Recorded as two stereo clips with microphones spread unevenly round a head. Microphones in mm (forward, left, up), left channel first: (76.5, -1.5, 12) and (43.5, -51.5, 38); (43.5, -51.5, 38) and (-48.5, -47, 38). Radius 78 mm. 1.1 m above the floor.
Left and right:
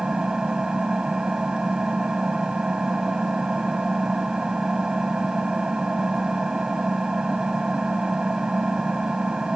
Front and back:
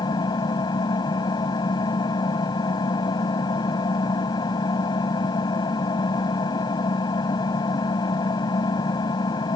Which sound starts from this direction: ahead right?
An engine running, at 0.0 s.